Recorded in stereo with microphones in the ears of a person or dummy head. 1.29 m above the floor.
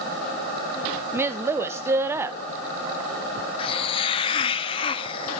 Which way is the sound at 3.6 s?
25° left (ahead or behind).